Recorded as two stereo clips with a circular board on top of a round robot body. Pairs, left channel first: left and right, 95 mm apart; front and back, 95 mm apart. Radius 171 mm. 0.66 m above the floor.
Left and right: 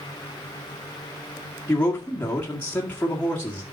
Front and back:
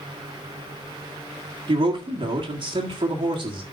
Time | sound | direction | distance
1.7 | a man speaking | 160° left | 2 m